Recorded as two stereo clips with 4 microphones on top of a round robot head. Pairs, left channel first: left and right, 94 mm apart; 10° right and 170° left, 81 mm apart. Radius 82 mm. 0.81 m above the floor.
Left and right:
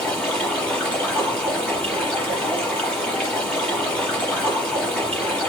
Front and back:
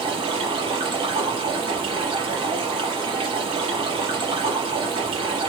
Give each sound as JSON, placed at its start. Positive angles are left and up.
{"t": 0.0, "sound": "running water", "azimuth_deg": 170, "distance_m": 5.5}